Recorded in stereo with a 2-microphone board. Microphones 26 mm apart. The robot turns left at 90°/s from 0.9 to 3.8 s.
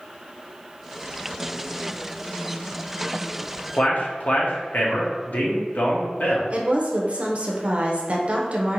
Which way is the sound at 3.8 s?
65° left (ahead or behind).